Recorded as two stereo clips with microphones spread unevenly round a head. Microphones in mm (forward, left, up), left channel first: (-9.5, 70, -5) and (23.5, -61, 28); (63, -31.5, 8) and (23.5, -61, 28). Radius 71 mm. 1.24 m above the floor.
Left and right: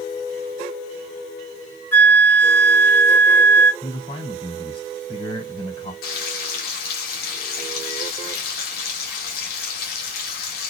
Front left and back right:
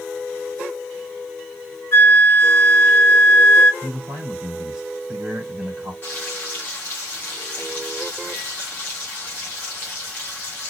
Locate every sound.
1.9 s a flute: 30° left, 1.5 m
3.8 s a man speaking: 160° left, 3 m
6.0 s frying: 105° left, 1.7 m